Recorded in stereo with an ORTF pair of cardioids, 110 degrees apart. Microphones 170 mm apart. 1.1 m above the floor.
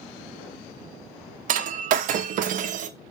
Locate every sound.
1.5 s breaking glass: 55° right, 0.6 m